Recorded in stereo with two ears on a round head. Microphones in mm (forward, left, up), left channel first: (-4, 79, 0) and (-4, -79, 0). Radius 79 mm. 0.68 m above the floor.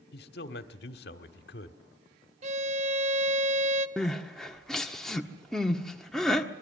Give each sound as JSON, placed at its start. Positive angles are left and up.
{"t": 0.1, "sound": "a man speaking", "side_deg": 65, "distance_m": 1.7}
{"t": 2.4, "sound": "a violin", "side_deg": -45, "distance_m": 0.9}
{"t": 4.0, "sound": "crying", "side_deg": 0, "distance_m": 1.4}